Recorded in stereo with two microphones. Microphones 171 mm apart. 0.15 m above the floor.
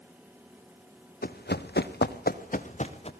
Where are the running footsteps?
65° left (ahead or behind), 1.6 m; by 3.1 s 40° left (ahead or behind), 2.5 m.